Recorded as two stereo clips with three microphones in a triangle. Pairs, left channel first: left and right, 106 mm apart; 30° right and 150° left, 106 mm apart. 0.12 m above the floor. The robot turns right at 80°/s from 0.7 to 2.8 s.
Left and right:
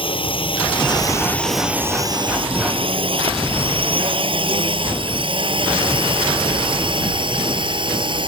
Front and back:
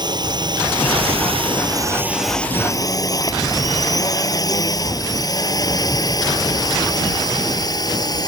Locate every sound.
0.0 s a drone: 110° left; by 8.3 s 70° right